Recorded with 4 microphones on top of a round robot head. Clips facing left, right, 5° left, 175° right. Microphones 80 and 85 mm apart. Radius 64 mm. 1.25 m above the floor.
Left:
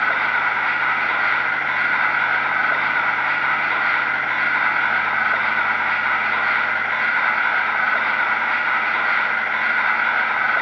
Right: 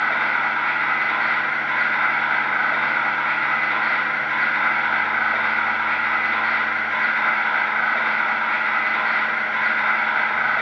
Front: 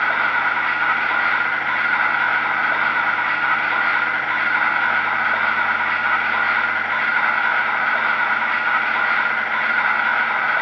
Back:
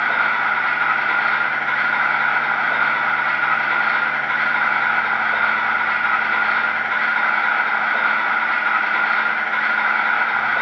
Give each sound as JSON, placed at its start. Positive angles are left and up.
{"t": 0.0, "sound": "an insect", "azimuth_deg": 135, "distance_m": 0.9}